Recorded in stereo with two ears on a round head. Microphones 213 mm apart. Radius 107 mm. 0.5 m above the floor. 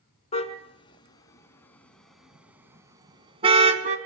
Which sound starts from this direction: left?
A car horn, at 0.3 s.